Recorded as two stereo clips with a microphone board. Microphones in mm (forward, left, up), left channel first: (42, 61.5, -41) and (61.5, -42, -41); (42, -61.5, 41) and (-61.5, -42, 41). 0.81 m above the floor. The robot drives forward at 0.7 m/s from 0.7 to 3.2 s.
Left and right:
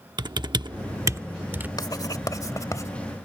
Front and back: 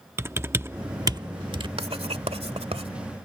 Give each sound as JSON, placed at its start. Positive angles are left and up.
{"t": 0.2, "sound": "typing on a keyboard", "azimuth_deg": -125}
{"t": 1.8, "sound": "writing", "azimuth_deg": 150}